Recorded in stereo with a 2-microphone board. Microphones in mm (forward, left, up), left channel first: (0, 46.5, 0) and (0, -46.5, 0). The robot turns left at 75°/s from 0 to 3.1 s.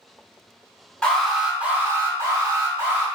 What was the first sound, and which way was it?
An alarm, 10° left.